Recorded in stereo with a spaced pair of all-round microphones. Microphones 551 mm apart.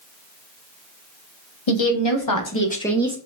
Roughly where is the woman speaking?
Left.